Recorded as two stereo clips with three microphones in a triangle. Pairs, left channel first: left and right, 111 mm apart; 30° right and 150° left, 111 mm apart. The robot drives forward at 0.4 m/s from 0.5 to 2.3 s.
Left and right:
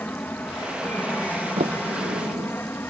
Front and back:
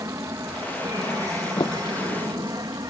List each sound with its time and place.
0.0 s an aircraft: 145° left
1.6 s a sliding door: 80° right; by 2.5 s 85° right